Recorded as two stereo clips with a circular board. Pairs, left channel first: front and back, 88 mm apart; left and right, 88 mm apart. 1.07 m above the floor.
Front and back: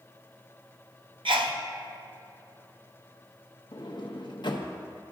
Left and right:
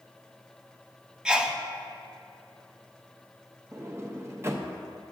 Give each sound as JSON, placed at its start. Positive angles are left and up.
{"t": 1.2, "sound": "a sneeze", "azimuth_deg": -170, "distance_m": 0.8}
{"t": 3.7, "sound": "a sliding door", "azimuth_deg": -30, "distance_m": 0.7}